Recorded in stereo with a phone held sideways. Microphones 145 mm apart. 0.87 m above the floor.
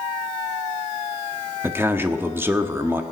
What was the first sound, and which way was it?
A man speaking, 15° right (ahead or behind).